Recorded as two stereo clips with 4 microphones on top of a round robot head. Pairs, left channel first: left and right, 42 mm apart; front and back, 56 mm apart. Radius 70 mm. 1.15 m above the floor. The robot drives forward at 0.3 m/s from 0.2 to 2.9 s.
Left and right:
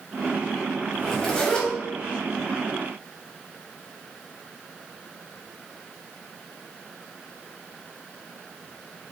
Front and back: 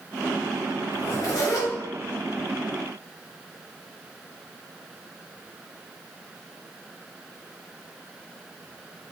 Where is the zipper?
25° left, 1.3 m; by 1.7 s 30° left, 1.1 m.